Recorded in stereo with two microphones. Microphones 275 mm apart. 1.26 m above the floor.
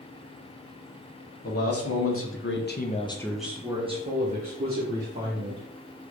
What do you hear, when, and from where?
1.4 s a man speaking: 55° left (ahead or behind), 1.0 m; by 5.7 s 40° right (ahead or behind), 1.6 m